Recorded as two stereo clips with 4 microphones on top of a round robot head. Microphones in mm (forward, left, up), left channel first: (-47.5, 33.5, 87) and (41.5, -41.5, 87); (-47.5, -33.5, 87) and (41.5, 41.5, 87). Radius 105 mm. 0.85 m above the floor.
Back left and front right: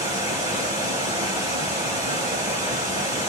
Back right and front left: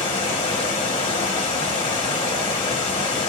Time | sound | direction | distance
0.0 | running water | 95° right | 0.9 m